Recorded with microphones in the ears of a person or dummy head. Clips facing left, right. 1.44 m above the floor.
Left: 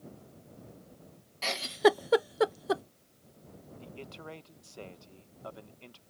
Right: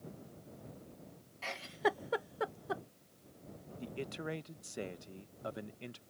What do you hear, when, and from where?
1.4 s a giggle: 55° left (ahead or behind)
3.8 s a man speaking: 20° right (ahead or behind)